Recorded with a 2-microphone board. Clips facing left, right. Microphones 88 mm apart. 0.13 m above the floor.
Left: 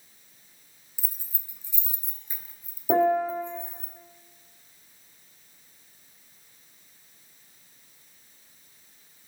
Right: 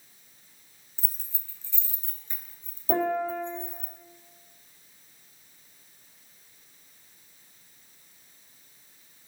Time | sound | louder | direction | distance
1.0 | keys jangling | left 1 dB | 10° left (ahead or behind) | 1.1 m
2.9 | a piano | left 4 dB | 20° left (ahead or behind) | 3.5 m